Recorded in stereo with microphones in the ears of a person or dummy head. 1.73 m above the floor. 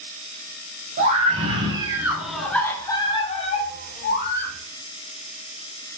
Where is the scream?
50° right (ahead or behind), 1.3 m; by 4.5 s 45° left (ahead or behind), 1.8 m.